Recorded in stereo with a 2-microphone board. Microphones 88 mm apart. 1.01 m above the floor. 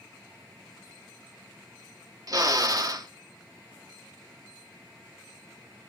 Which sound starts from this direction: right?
A drill, at 2.3 s.